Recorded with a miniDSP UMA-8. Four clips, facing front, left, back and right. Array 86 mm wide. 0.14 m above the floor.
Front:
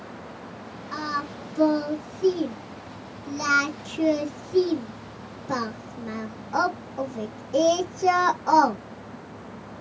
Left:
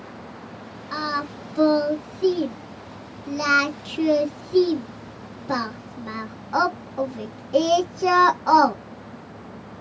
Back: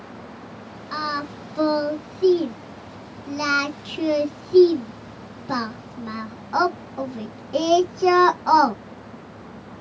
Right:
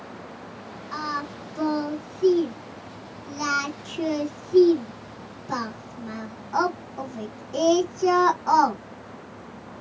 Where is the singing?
145° left, 1.2 m.